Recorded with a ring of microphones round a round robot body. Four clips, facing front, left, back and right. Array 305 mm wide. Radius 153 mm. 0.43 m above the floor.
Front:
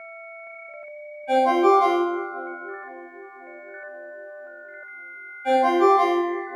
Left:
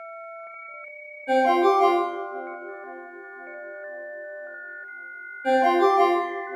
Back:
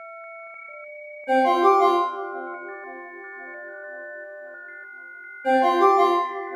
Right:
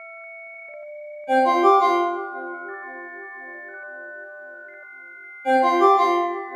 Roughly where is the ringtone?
Behind left.